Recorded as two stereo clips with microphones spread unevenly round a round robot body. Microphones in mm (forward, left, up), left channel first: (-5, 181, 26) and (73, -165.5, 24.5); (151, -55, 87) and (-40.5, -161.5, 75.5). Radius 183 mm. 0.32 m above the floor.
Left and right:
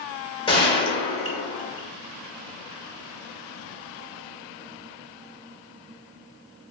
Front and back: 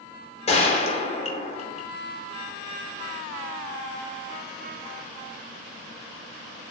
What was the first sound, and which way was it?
A gunshot, 45° left.